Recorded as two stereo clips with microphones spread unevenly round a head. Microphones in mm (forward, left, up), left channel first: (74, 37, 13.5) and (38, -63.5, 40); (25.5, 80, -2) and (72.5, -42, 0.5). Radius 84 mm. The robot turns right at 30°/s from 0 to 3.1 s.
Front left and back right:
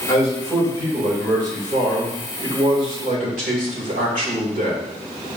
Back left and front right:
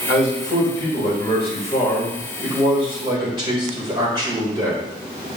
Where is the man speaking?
135° left, 3 m; by 4.8 s 135° right, 3 m.